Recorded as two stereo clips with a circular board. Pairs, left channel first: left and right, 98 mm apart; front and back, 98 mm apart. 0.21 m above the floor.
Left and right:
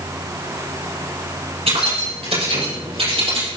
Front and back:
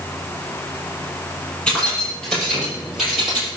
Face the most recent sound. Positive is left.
turn(degrees=-95)